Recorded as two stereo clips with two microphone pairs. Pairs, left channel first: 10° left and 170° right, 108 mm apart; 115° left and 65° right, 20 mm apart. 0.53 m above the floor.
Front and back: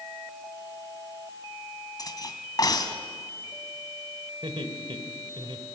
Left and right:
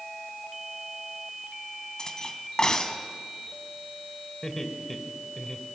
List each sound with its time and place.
2.0 s cutlery clinking: 60° left, 2 m
4.4 s laughter: 175° left, 2.5 m